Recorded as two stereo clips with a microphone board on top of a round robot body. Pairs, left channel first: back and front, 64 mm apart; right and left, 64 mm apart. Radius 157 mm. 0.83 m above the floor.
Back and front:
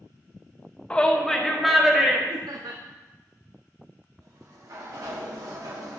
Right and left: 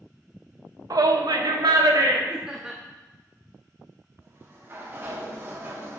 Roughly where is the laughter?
Ahead.